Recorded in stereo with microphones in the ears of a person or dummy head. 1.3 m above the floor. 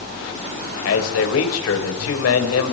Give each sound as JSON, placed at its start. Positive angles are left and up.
{"t": 0.8, "sound": "a man speaking", "side_deg": 80, "distance_m": 6.0}